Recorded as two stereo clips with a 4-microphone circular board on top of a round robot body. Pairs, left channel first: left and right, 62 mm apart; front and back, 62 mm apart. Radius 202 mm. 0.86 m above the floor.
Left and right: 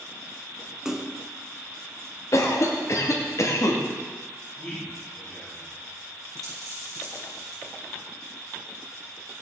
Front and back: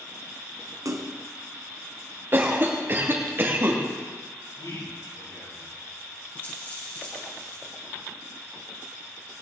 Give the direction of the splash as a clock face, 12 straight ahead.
6 o'clock.